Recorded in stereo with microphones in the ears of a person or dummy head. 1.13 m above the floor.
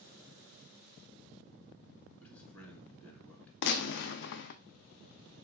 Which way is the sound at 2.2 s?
5° left (ahead or behind).